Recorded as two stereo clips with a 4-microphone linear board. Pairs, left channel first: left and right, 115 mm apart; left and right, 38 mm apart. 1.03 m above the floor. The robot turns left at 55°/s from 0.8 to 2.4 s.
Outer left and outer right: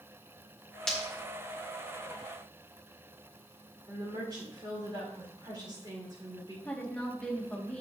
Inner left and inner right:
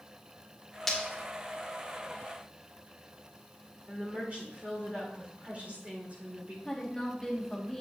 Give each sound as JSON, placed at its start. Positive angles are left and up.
{"t": 0.9, "sound": "breaking glass", "side_deg": 5, "distance_m": 1.8}
{"t": 3.9, "sound": "a woman speaking", "side_deg": -40, "distance_m": 3.5}
{"t": 6.7, "sound": "a woman speaking", "side_deg": 10, "distance_m": 1.6}